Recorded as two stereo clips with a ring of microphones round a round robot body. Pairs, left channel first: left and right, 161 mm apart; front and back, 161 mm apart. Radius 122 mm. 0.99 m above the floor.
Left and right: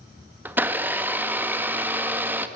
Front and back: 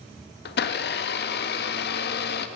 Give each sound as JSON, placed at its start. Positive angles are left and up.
{"t": 0.5, "sound": "a blender", "azimuth_deg": -10, "distance_m": 1.6}